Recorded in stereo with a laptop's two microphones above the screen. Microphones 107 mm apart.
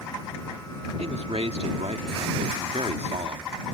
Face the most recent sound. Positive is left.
turn(degrees=-75)  # may be behind; listen again after turning